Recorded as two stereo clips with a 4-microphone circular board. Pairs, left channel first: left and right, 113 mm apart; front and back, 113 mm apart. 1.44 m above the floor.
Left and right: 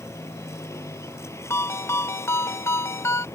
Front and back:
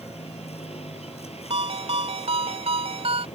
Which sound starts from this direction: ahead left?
A vehicle, at 0.0 s.